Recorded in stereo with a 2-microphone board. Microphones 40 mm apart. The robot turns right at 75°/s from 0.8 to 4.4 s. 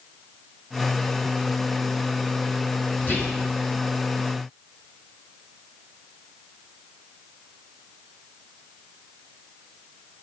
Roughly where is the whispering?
Left.